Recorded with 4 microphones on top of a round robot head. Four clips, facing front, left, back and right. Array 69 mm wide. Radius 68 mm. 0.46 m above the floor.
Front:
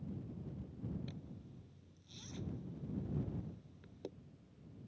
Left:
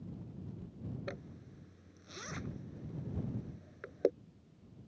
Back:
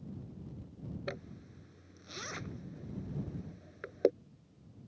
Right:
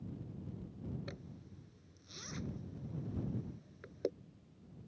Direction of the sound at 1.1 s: 160° left.